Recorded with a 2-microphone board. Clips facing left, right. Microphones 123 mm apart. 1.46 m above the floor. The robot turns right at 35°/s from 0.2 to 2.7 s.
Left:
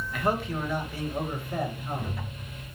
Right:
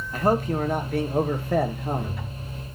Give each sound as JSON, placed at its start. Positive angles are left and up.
{"t": 0.1, "sound": "a man speaking", "azimuth_deg": -140, "distance_m": 0.6}